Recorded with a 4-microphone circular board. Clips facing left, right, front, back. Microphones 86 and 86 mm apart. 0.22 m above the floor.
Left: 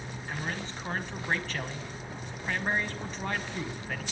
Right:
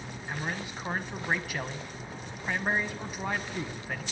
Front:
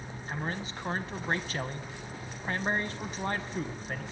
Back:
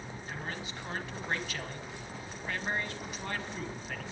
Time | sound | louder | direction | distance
0.3 | a man speaking | right 1 dB, front 5 dB | 15° right | 1.4 m